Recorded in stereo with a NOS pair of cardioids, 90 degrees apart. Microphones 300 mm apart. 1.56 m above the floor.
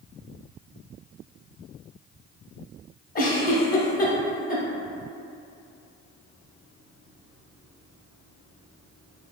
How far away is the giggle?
About 0.6 m.